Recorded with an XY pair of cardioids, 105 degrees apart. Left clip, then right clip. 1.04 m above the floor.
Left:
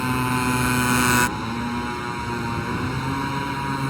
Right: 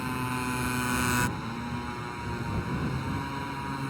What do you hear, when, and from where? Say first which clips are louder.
0.0 s a motorcycle: left 9 dB; 55° left